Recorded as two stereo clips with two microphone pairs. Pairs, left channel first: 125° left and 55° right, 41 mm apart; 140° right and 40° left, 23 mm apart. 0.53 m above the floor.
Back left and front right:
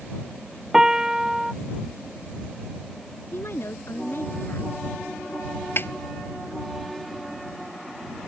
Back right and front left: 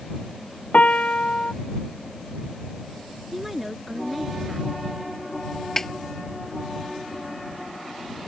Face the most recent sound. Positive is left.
turn(degrees=150)